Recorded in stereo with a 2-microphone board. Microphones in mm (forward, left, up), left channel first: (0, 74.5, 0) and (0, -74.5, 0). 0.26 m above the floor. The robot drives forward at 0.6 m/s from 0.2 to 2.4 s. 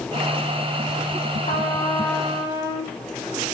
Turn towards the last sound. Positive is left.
turn(degrees=30)  # may be behind; listen again after turning